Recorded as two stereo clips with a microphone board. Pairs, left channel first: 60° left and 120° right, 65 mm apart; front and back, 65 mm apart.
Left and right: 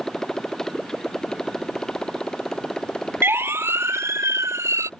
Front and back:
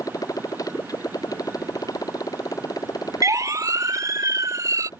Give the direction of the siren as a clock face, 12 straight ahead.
6 o'clock.